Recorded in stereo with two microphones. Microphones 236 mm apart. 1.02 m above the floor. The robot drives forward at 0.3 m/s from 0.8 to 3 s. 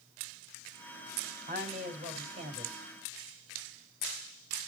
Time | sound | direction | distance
1.5 | a woman speaking | 30° right (ahead or behind) | 3.5 m